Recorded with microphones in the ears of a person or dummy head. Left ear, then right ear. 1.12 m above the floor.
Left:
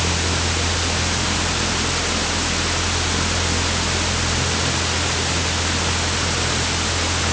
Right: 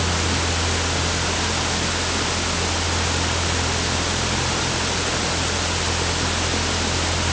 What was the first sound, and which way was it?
Only background noise.